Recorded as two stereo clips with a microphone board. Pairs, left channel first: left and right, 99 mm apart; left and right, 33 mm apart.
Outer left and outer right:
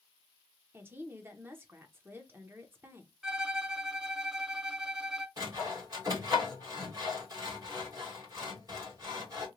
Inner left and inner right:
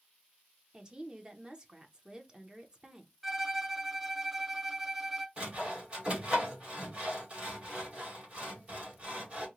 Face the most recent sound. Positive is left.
turn(degrees=-40)  # may be behind; listen again after turning